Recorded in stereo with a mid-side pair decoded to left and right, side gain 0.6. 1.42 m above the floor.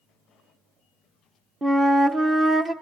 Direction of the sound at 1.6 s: 25° right.